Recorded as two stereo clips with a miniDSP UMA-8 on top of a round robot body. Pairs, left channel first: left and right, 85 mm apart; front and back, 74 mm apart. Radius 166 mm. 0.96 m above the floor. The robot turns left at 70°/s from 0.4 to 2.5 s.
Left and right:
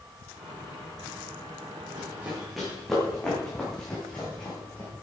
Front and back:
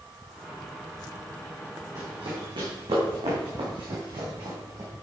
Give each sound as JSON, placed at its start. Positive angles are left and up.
{"t": 1.9, "sound": "running footsteps", "azimuth_deg": -135, "distance_m": 4.5}